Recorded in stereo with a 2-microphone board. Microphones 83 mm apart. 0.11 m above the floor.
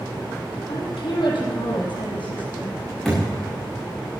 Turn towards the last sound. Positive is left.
turn(degrees=5)  # may be behind; listen again after turning